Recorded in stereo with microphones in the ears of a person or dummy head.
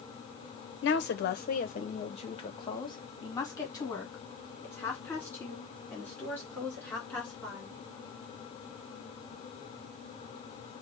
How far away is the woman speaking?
About 0.8 m.